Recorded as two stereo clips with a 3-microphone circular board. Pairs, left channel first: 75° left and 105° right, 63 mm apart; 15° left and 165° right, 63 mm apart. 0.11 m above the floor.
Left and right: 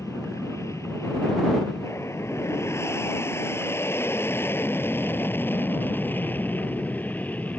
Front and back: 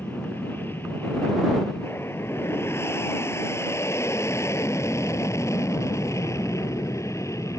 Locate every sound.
0.0 s an aircraft: 60° left; by 7.6 s 15° left